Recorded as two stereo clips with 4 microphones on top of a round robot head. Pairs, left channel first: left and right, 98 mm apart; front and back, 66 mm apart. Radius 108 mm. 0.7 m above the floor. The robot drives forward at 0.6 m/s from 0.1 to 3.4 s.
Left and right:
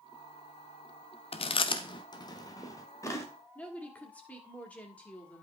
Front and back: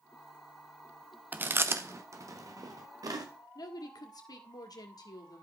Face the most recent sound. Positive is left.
turn(degrees=15)